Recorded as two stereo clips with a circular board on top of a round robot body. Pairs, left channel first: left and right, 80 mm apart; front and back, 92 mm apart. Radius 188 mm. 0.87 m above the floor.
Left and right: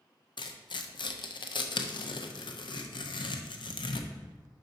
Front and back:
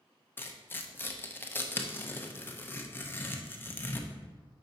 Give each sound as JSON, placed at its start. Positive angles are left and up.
{"t": 0.4, "sound": "tearing paper", "azimuth_deg": 70, "distance_m": 0.6}